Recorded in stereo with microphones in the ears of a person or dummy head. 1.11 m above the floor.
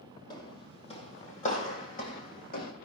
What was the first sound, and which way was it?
Footsteps, 20° left (ahead or behind).